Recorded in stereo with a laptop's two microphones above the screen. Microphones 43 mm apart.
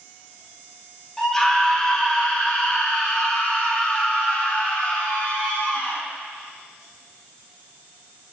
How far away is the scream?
About 3.5 m.